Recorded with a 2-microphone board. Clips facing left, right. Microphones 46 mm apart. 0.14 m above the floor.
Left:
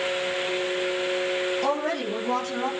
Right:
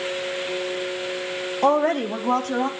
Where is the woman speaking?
35° right (ahead or behind), 5 m; by 2.7 s 50° right (ahead or behind), 6 m.